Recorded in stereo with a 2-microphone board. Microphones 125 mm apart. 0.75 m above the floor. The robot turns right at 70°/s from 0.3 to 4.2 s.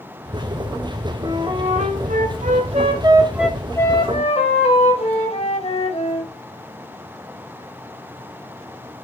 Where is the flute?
160° right, 1.3 m; by 6.3 s 50° left, 1.3 m.